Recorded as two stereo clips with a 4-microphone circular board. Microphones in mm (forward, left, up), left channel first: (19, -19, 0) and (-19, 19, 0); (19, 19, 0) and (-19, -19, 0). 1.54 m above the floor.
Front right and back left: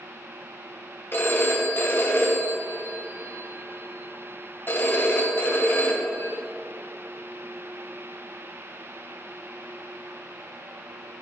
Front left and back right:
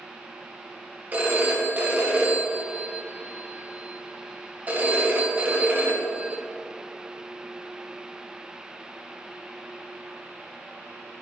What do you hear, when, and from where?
1.1 s a phone ringing: 85° right, 0.9 m